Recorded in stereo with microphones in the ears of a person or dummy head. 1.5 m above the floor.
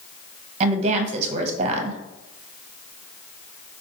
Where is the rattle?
I don't hear a rattle.